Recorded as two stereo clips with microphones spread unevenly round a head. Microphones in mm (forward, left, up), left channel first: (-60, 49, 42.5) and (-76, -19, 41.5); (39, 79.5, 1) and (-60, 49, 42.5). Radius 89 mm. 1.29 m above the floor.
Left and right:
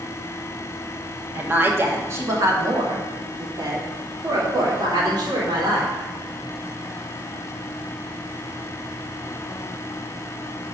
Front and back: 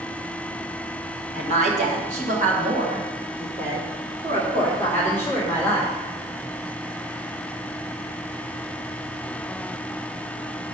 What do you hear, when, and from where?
1.4 s a woman speaking: 165° right, 2.0 m; by 6.0 s 120° right, 4 m